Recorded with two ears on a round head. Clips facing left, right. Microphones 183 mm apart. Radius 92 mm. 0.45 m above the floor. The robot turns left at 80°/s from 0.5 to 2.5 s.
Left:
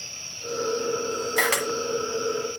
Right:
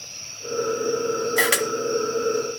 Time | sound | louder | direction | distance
1.4 | a camera shutter | right 3 dB | centre (ahead or behind) | 1.5 m